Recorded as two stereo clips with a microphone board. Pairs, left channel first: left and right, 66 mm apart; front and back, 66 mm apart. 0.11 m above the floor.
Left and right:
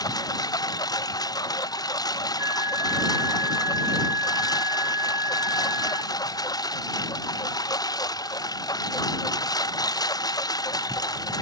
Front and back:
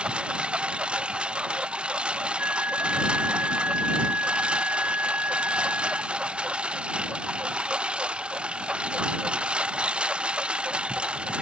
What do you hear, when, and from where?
0.0 s a lawn mower: 105° left
2.4 s a flute: 120° right